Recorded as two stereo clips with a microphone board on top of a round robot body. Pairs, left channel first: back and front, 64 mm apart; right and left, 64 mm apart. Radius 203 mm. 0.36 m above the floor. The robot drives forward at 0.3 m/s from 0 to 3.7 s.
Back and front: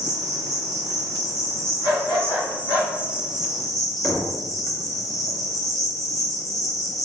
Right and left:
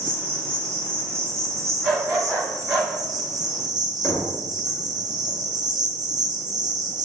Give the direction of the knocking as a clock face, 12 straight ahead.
4 o'clock.